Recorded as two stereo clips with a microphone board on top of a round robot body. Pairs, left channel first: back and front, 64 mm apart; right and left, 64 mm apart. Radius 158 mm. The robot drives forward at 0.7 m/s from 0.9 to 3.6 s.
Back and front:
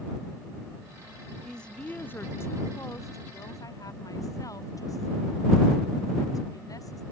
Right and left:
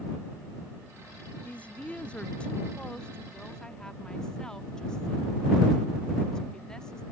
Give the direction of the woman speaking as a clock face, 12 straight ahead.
4 o'clock.